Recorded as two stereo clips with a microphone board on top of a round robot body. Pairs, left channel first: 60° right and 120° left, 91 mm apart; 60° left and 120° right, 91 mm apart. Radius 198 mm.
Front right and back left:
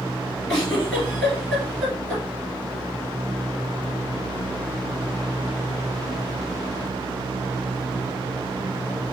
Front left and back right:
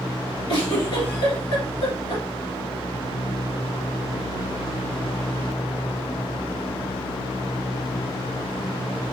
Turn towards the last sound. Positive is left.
turn(degrees=30)